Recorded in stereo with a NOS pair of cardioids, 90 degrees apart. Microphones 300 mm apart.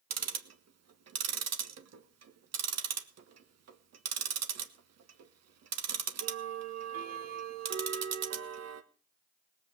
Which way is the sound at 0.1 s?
55° right.